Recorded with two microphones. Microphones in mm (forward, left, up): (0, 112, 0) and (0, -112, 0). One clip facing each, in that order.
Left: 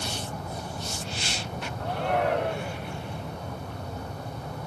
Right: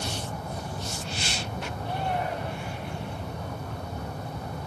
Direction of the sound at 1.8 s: 75° left (ahead or behind).